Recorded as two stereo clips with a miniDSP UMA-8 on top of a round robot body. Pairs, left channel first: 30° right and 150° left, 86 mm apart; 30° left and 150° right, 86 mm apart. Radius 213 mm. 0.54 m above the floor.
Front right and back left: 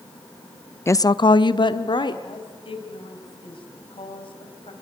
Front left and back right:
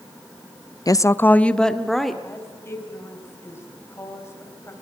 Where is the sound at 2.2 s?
30° right, 4 m.